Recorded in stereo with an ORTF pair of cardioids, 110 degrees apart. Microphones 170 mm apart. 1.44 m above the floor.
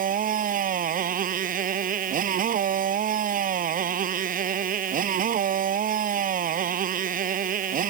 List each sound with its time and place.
0.0 s a motorcycle: 55° right